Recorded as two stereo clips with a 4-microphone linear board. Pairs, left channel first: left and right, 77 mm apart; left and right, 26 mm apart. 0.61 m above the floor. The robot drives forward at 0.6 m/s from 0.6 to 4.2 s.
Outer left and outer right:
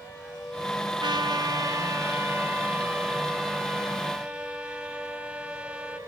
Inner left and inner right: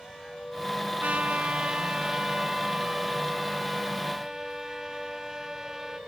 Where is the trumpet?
70° right (ahead or behind); by 6.0 s 15° right (ahead or behind).